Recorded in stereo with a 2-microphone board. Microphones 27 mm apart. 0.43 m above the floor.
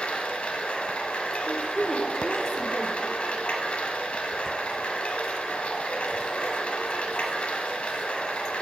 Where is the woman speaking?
20° left (ahead or behind), 0.8 m.